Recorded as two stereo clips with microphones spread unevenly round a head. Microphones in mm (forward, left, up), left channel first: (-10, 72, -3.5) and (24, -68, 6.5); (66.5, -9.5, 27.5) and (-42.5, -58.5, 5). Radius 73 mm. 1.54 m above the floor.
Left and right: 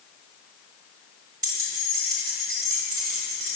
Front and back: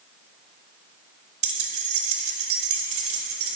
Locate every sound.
1.4 s keys jangling: 130° right, 1.0 m